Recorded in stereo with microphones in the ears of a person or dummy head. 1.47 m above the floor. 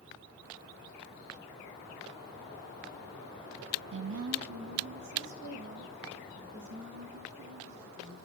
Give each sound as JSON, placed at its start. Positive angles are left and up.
{"t": 3.9, "sound": "a woman speaking", "side_deg": -70, "distance_m": 0.6}